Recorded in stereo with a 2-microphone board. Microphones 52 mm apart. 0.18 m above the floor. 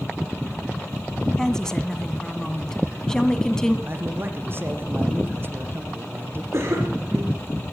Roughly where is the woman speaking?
Centre.